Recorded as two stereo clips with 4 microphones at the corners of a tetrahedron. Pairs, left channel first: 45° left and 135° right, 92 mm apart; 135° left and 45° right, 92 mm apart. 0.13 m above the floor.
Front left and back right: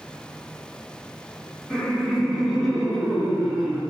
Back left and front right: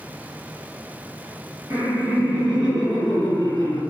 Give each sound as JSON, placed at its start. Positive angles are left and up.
{"t": 1.7, "sound": "laughter", "azimuth_deg": -40, "distance_m": 1.3}